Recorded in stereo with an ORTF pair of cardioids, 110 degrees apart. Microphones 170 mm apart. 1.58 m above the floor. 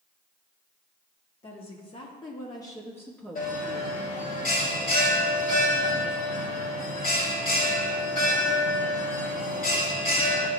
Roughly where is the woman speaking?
Ahead left.